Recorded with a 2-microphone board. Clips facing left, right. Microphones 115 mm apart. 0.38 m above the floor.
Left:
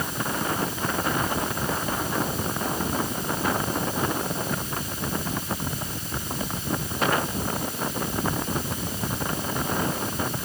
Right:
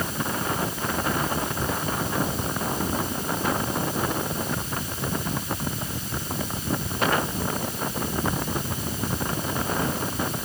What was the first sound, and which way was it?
Only background noise.